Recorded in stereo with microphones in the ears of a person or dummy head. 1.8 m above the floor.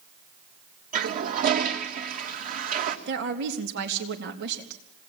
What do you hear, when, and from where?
0.9 s a toilet flushing: 50° right (ahead or behind), 1.7 m
3.1 s a woman speaking: 55° right (ahead or behind), 3.5 m